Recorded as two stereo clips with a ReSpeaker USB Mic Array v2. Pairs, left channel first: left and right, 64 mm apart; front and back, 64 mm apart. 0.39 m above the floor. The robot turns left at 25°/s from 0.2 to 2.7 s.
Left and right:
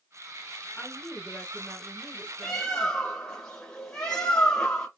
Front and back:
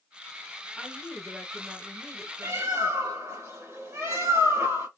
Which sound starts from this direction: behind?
A bird, at 2.4 s.